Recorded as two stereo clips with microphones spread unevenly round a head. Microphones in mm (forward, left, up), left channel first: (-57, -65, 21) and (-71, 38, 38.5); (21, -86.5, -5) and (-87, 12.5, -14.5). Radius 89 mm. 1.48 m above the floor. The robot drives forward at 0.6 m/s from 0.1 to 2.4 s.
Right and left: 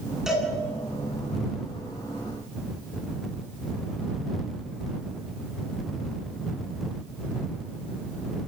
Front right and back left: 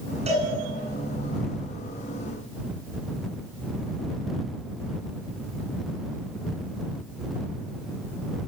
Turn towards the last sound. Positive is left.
turn(degrees=-175)